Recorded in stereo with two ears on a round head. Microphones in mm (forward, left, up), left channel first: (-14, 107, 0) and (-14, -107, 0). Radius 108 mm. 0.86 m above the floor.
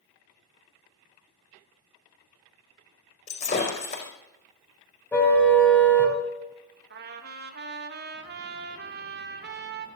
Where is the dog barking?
I don't hear a dog barking.